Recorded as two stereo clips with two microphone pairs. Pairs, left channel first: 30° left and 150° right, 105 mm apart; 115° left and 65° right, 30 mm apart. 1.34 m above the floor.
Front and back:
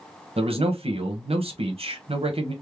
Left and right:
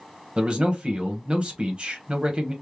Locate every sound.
0.4 s a man speaking: 125° right, 0.9 m